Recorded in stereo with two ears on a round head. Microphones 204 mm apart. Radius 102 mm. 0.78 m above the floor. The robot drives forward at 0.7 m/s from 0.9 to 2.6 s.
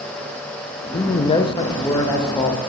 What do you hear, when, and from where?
0.9 s a man speaking: 20° left (ahead or behind), 0.6 m; by 2.6 s 10° left (ahead or behind), 1.0 m